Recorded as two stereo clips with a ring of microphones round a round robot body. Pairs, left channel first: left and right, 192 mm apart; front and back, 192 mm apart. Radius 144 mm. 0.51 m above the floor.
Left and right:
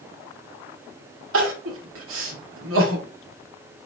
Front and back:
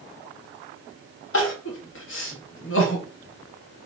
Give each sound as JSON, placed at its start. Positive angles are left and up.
{"t": 1.3, "sound": "crying", "azimuth_deg": -50, "distance_m": 0.8}